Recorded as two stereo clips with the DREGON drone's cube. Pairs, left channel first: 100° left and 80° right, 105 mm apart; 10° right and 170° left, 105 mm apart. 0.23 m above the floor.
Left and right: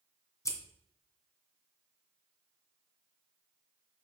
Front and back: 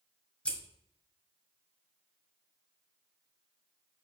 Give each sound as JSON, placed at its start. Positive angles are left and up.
{"t": 0.5, "sound": "scissors", "azimuth_deg": 65, "distance_m": 1.6}